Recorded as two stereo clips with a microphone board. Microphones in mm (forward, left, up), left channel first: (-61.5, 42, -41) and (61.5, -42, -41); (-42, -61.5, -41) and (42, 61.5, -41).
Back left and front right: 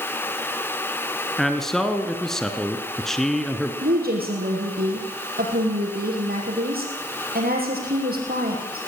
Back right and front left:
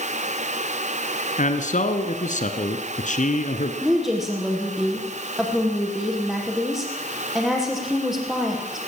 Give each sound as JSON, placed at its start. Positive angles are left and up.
{"t": 1.4, "sound": "a man speaking", "azimuth_deg": -125, "distance_m": 1.7}
{"t": 3.8, "sound": "a woman speaking", "azimuth_deg": -35, "distance_m": 6.0}